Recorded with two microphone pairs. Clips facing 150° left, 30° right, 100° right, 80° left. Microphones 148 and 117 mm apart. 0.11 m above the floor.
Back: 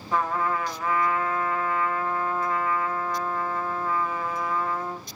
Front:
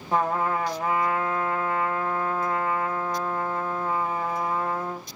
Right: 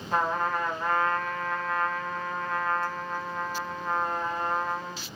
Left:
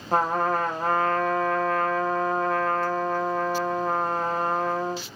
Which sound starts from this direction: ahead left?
A trumpet, at 0.1 s.